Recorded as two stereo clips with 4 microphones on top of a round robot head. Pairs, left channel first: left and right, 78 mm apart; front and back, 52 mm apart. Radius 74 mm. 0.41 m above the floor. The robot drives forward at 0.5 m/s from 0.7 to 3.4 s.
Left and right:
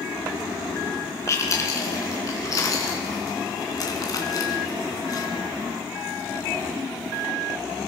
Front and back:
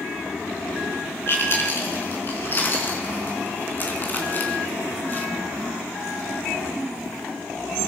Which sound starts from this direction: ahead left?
Chewing, at 1.3 s.